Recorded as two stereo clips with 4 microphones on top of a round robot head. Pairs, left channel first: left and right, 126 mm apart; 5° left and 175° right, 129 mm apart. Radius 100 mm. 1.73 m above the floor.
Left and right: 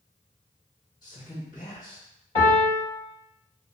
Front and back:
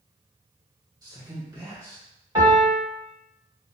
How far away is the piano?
About 1.9 m.